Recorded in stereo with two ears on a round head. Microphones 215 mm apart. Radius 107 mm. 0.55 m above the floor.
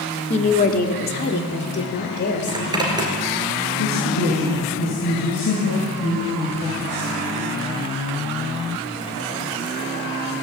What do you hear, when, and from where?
0.3 s a woman speaking: 25° left (ahead or behind), 1.2 m; by 3.2 s 45° left (ahead or behind), 3 m
2.5 s a zipper: 20° right (ahead or behind), 3 m
3.8 s a man speaking: 75° left (ahead or behind), 7.5 m